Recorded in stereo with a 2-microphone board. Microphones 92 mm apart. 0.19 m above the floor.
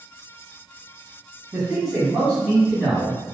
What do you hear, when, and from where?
1.5 s a man speaking: 15° right (ahead or behind), 1.6 m; by 3.2 s 5° left (ahead or behind), 2 m